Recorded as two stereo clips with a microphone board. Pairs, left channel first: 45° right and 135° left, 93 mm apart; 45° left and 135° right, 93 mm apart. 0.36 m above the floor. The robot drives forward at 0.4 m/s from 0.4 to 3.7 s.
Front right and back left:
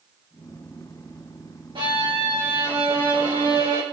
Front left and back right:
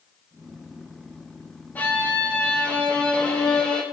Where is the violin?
115° left, 3.5 m; by 3.8 s 125° left, 4 m.